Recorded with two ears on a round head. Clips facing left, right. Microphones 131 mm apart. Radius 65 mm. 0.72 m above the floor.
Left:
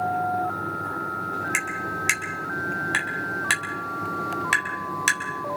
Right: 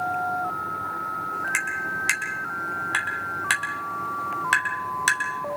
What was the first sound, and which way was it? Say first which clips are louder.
Tapping: left 1 dB; 10° left (ahead or behind).